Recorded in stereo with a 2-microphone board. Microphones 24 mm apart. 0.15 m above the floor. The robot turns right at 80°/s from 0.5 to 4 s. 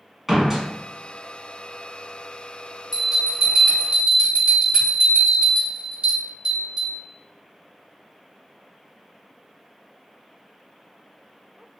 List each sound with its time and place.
0.3 s a door slam: 10° right (ahead or behind), 0.7 m
2.9 s a bell: 170° left, 2.0 m; by 7.0 s 105° right, 2.0 m